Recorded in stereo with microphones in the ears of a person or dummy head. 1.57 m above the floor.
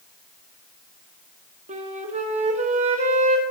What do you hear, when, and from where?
1.7 s a flute: 35° right (ahead or behind), 1.2 m